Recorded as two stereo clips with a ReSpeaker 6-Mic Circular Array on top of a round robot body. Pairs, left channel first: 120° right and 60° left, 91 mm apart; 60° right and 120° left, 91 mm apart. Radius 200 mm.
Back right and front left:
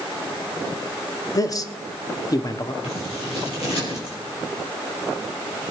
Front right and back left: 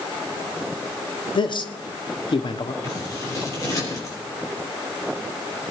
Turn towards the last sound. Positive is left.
turn(degrees=-115)